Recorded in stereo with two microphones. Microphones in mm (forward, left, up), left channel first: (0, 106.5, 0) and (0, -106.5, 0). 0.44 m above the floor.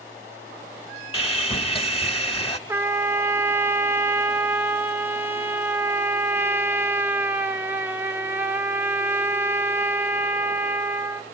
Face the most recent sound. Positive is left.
turn(degrees=-10)  # may be behind; listen again after turning